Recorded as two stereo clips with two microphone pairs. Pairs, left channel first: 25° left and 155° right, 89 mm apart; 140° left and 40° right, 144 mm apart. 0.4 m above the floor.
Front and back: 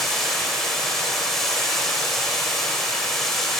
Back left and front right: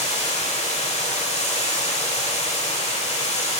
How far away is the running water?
About 1.2 m.